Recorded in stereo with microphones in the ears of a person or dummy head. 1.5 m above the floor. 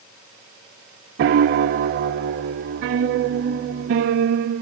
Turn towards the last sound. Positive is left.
turn(degrees=-40)  # may be behind; listen again after turning